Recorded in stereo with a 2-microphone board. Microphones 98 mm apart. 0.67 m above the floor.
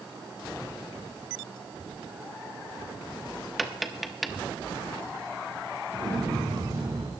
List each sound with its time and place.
3.6 s tapping: centre (ahead or behind), 0.9 m
5.9 s an explosion: 60° right (ahead or behind), 5 m